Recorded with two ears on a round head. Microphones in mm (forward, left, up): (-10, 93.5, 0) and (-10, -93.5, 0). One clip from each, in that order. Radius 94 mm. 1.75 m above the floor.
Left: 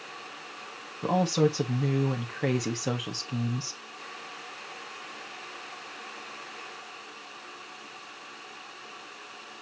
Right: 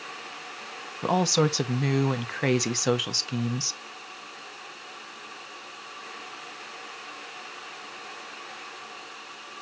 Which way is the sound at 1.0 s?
50° right (ahead or behind).